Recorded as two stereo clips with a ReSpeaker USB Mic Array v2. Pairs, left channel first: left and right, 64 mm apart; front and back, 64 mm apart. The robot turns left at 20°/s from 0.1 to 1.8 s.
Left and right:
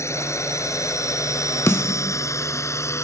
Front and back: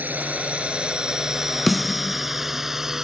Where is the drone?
120° left; by 3.0 s 100° left.